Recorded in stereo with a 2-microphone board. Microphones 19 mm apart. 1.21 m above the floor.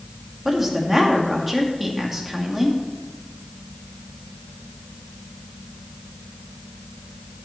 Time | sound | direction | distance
0.5 | a woman speaking | 15° right (ahead or behind) | 2 m